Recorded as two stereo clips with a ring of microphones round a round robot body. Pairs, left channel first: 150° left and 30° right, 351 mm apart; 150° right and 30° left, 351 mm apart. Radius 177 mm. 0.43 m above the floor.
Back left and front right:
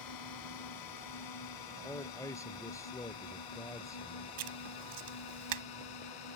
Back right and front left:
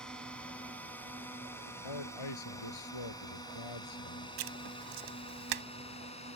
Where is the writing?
5° left.